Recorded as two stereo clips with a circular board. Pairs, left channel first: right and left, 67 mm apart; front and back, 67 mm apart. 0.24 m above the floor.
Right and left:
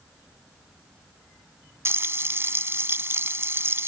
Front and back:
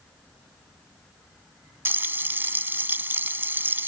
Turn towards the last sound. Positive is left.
turn(degrees=135)